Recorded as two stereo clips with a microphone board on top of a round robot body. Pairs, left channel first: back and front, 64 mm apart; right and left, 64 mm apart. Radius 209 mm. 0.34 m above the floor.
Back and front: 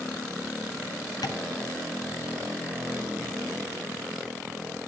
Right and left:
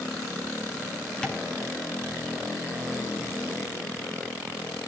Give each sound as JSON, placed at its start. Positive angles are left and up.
{"t": 1.2, "sound": "tapping", "azimuth_deg": -170, "distance_m": 4.0}